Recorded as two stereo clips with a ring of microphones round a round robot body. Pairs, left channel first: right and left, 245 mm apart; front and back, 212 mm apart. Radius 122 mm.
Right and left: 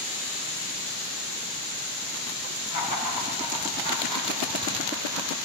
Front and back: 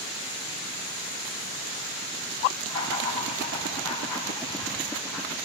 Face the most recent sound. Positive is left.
turn(degrees=-170)